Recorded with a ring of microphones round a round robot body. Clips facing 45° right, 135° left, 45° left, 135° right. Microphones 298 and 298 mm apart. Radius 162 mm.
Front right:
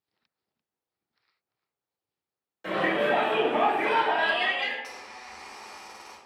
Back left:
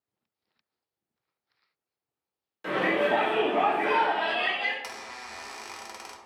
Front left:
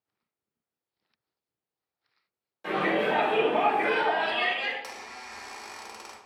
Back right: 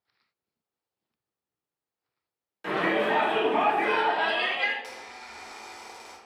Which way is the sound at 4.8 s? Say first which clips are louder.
Back left 2 dB, even; 110° left.